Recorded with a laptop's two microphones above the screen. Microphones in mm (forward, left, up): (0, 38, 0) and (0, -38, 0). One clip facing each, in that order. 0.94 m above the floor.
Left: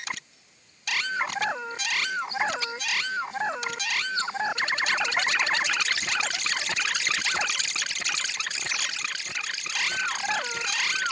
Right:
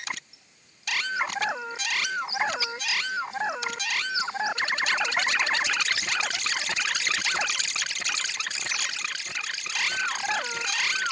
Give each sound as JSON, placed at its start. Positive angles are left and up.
{"t": 0.3, "sound": "a bird", "side_deg": -10, "distance_m": 2.0}